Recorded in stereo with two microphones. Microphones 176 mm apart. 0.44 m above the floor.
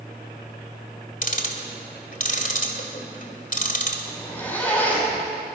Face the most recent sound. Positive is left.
turn(degrees=10)  # may be behind; listen again after turning